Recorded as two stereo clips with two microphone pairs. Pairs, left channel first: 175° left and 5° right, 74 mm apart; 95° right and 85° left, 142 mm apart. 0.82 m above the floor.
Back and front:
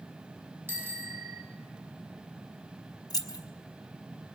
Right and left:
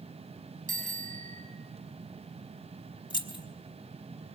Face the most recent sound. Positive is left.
turn(degrees=-155)